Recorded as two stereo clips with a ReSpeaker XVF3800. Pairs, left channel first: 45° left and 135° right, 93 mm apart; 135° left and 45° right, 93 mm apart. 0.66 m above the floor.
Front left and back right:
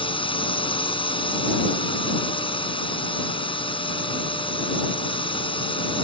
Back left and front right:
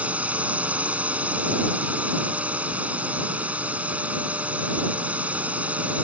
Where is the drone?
30° left.